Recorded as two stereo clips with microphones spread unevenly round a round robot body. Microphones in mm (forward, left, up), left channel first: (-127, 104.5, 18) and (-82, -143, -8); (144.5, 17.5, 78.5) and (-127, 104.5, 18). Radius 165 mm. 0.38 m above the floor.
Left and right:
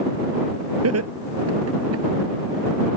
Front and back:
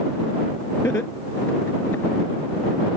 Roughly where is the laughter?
Right.